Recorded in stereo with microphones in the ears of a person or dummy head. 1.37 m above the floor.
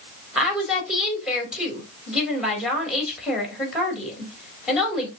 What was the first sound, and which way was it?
A woman speaking, centre (ahead or behind).